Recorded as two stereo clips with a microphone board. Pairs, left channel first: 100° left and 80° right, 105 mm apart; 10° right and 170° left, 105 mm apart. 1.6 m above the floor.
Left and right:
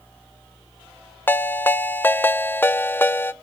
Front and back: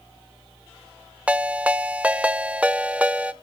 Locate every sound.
1.3 s a ringtone: 125° left, 0.5 m